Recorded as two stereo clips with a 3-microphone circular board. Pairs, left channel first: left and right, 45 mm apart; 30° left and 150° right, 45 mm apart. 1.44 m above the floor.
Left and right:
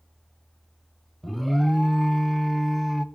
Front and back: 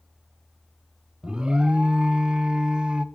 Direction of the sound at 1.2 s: 175° left.